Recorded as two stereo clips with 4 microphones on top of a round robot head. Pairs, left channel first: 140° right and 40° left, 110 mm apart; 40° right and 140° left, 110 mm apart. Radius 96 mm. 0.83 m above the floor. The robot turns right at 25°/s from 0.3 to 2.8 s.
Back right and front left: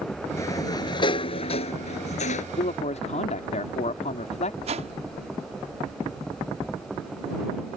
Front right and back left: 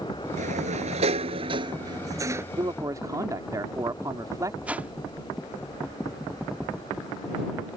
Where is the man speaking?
165° right; by 4.5 s 160° right.